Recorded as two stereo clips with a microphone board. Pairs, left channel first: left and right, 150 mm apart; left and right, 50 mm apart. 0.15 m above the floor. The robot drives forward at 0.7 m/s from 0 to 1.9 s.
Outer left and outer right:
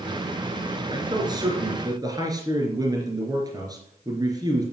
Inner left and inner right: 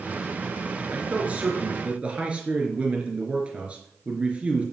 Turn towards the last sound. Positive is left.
turn(degrees=-25)  # may be behind; listen again after turning